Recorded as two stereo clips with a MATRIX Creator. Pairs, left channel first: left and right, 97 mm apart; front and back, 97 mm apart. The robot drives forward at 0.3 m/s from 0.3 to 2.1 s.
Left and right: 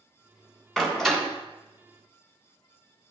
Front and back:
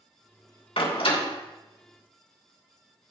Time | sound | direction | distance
0.8 | a door slam | 5° left | 2.5 m